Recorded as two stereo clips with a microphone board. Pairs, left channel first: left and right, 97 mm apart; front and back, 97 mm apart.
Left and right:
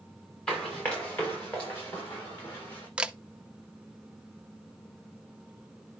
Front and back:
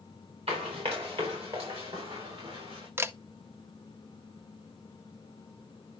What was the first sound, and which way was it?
Running footsteps, 165° left.